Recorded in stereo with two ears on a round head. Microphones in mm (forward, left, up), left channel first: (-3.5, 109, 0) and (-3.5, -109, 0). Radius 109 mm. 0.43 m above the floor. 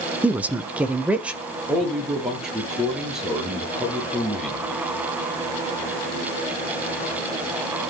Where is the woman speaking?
5° right (ahead or behind), 0.9 m.